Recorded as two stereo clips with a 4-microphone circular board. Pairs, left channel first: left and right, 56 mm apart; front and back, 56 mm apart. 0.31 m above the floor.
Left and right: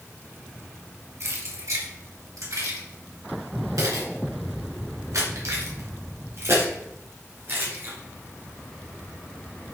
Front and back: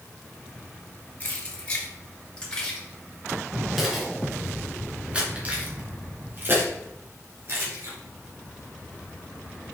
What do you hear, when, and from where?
1.2 s keys jangling: 60° right, 3 m; by 7.9 s 145° right, 3 m